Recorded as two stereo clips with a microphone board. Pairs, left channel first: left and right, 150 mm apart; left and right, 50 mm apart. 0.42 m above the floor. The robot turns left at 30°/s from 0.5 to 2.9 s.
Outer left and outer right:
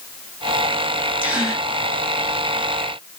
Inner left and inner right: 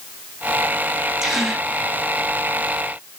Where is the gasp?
10° right (ahead or behind), 1.5 m; by 1.7 s centre (ahead or behind), 1.5 m.